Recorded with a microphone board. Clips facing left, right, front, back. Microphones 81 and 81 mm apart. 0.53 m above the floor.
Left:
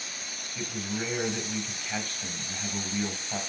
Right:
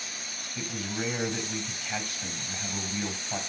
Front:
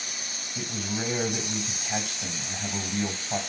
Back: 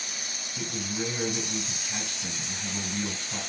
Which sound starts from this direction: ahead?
A man speaking, at 0.6 s.